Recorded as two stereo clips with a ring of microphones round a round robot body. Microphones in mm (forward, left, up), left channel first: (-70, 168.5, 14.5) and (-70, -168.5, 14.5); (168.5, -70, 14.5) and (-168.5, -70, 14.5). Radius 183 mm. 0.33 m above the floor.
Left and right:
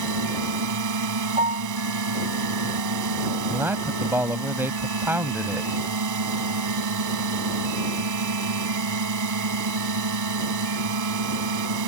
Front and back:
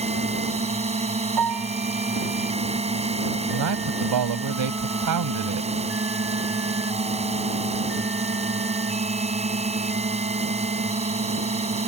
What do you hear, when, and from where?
0.0 s a drone: 110° right
1.4 s a piano: 160° right
3.5 s a man speaking: 175° right